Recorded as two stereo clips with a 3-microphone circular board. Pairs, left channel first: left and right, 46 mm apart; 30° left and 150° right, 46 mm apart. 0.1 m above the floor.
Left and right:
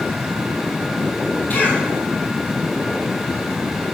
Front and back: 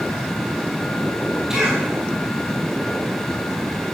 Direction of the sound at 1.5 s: 130° left.